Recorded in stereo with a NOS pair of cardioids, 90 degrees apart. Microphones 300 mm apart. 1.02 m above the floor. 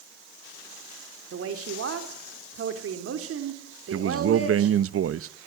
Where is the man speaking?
50° right, 1.0 m.